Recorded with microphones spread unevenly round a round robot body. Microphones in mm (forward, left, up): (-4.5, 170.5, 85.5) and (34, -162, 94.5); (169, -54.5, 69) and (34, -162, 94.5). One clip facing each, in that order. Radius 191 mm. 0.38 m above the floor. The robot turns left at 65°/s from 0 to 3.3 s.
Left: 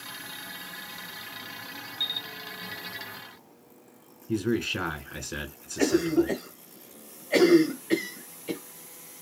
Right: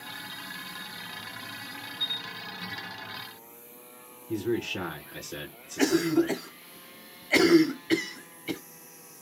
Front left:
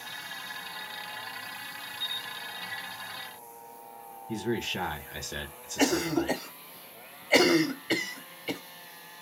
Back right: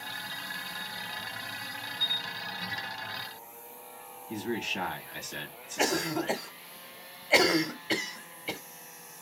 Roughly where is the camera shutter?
Behind left.